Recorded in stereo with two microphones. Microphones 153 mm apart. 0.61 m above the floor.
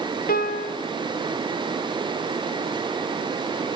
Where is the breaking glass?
I don't hear breaking glass.